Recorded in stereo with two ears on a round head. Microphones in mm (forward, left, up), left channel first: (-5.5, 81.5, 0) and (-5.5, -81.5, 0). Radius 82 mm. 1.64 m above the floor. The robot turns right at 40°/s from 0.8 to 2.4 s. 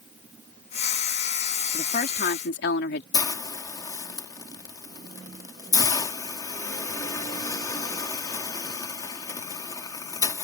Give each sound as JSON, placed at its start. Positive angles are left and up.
{"t": 1.7, "sound": "a woman speaking", "side_deg": 35}
{"t": 3.1, "sound": "a hiss", "side_deg": 20}